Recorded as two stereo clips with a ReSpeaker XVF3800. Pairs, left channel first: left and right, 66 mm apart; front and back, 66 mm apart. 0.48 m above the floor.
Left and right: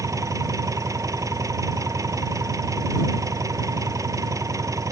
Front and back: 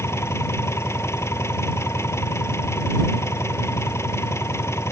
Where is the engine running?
50° right.